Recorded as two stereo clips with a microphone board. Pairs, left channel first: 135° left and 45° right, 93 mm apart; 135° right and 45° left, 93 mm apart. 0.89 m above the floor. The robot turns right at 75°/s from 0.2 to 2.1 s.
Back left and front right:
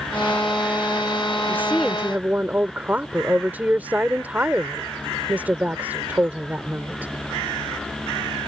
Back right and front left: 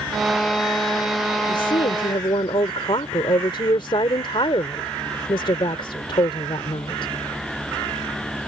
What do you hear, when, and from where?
1.5 s a woman speaking: 165° right; by 7.1 s 115° right